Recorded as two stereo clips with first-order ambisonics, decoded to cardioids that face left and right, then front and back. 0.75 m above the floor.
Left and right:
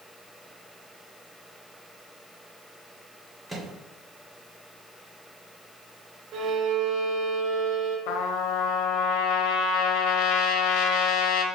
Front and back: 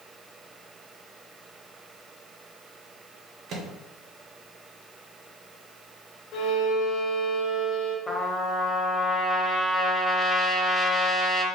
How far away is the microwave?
About 0.9 m.